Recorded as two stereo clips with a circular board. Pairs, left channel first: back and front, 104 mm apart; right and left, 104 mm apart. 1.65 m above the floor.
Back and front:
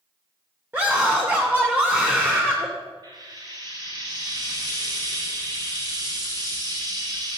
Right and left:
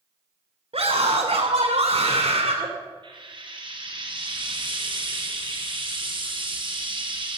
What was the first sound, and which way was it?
A scream, 70° left.